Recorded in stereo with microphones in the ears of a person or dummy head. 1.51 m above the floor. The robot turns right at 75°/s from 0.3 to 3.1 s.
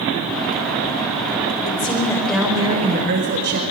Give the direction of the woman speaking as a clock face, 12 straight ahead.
8 o'clock.